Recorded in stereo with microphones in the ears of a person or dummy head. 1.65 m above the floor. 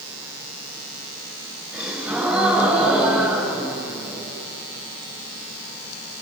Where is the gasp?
Centre (ahead or behind), 5 m.